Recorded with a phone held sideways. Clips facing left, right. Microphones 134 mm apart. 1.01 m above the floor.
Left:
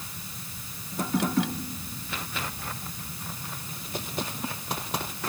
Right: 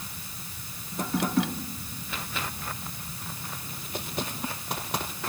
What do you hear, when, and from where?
Only background noise.